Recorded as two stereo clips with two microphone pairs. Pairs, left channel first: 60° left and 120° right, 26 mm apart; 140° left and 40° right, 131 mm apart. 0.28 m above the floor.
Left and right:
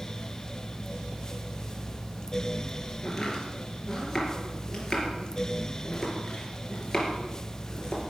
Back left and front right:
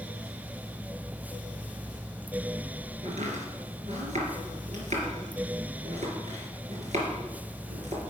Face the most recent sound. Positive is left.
turn(degrees=-15)